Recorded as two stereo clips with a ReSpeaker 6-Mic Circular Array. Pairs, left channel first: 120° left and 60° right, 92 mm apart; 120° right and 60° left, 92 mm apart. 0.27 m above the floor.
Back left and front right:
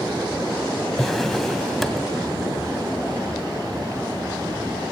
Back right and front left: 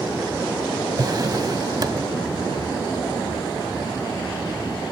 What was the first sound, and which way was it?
A drawer, 35° left.